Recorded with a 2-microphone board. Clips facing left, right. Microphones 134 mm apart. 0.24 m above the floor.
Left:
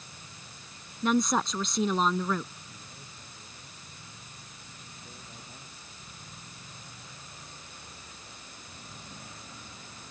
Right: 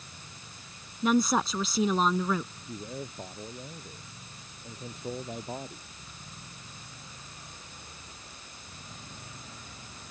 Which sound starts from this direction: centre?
A woman speaking, at 1.0 s.